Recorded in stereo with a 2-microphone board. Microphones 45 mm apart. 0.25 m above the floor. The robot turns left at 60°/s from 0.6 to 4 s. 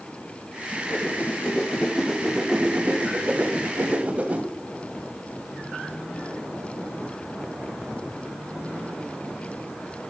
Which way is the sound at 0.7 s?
80° left.